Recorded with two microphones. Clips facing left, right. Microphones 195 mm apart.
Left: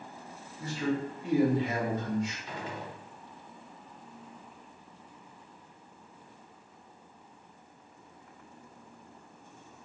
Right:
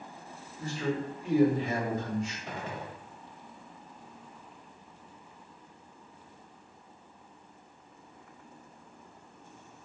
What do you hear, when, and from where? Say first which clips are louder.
0.6 s a man speaking: left 1 dB; 85° left, 2.0 m
2.5 s a gunshot: right 1 dB; 55° right (ahead or behind), 0.6 m